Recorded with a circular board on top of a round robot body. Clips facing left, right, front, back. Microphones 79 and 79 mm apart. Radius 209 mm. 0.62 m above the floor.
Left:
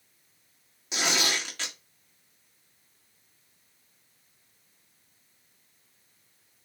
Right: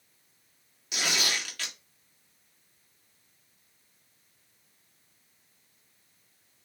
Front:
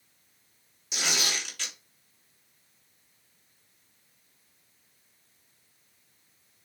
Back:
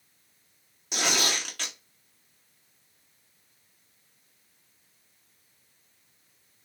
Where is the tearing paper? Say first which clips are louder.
Left 3 dB, back 4 dB; 150° left, 3 m.